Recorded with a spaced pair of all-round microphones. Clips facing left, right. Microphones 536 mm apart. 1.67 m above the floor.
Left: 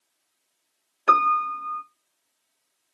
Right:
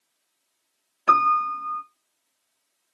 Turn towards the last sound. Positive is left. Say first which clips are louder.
# even
turn(degrees=-20)  # may be behind; listen again after turning